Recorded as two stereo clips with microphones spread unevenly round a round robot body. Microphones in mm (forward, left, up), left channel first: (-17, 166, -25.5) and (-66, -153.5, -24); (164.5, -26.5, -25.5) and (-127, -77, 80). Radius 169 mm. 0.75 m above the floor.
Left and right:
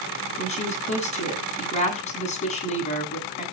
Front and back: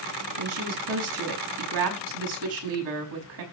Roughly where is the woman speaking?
Behind left.